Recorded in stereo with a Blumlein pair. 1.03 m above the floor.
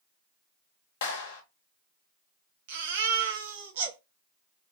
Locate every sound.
1.0 s a clap: 55° left, 1.1 m
2.7 s a baby crying: 55° right, 0.9 m